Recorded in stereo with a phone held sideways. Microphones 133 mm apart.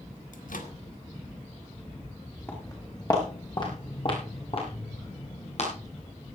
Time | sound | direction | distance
0.3 | a microwave | 85° left | 2.0 m
2.5 | footsteps | 20° left (ahead or behind) | 5 m